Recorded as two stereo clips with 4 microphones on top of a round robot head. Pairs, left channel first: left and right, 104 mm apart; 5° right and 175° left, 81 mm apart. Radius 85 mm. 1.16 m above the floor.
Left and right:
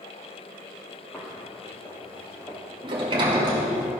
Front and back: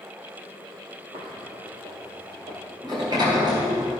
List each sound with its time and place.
1.1 s footsteps: 165° left, 2 m
2.8 s a sliding door: 130° right, 1.8 m